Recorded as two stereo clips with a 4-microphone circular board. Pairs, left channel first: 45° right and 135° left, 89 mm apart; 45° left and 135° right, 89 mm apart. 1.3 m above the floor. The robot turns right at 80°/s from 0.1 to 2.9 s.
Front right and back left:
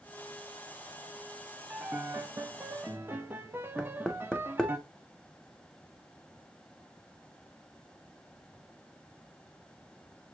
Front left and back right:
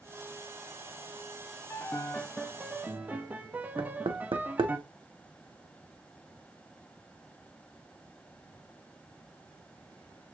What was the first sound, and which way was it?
A piano, 80° left.